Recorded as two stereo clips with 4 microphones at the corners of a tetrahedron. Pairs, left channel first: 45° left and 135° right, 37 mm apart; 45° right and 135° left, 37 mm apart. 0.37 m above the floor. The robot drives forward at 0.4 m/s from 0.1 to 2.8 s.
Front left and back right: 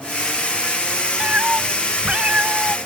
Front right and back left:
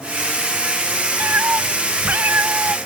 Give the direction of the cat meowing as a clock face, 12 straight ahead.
6 o'clock.